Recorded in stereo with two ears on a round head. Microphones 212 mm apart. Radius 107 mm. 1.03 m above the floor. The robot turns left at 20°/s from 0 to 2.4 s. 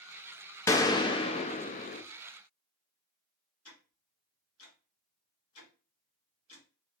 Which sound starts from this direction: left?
Ticking, at 3.6 s.